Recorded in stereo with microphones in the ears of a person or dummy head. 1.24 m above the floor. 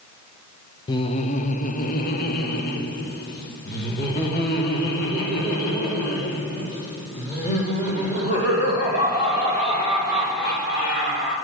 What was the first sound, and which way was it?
Laughter, 20° left (ahead or behind).